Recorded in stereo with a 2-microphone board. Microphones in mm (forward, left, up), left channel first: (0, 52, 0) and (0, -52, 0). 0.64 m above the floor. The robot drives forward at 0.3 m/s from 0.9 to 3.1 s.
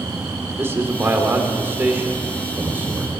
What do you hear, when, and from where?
0.6 s a man speaking: 25° right (ahead or behind), 1.6 m; by 3.1 s 15° right (ahead or behind), 2 m